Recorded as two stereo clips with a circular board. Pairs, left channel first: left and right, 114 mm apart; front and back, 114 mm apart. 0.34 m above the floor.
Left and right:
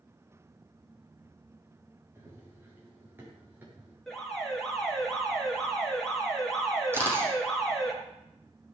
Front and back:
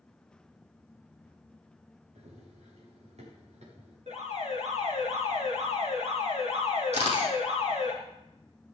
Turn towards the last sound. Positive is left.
turn(degrees=-160)